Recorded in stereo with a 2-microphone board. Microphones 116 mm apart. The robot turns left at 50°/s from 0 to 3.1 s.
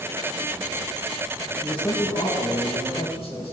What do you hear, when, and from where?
1.6 s a man speaking: 160° left, 2.5 m; by 3.5 s 85° left, 2.5 m